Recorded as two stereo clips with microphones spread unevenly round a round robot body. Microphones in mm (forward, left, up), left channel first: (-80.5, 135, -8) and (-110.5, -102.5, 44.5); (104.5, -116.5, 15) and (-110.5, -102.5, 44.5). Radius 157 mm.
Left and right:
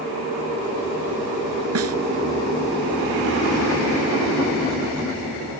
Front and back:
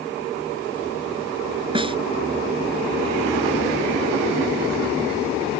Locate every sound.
1.8 s a snare drum: 115° right